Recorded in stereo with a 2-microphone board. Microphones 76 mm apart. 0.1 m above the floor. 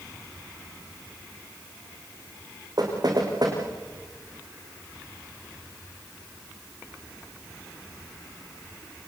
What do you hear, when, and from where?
2.8 s knocking: 60° right (ahead or behind), 6.5 m